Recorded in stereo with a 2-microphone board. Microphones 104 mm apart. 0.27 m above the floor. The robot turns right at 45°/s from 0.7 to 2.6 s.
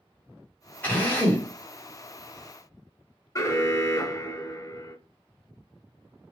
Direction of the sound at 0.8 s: 15° left (ahead or behind).